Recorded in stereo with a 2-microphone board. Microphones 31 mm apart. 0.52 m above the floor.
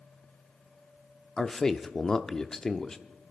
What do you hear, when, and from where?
1.4 s a man speaking: 20° left (ahead or behind), 0.7 m